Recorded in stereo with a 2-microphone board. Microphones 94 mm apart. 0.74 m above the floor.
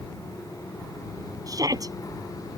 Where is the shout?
40° right (ahead or behind).